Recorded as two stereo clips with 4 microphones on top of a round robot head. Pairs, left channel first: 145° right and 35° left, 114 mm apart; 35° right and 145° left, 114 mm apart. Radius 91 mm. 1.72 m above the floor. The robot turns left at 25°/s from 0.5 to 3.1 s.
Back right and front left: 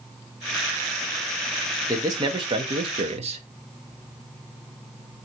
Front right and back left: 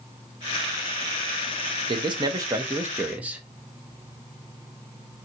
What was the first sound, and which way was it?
A man speaking, 100° left.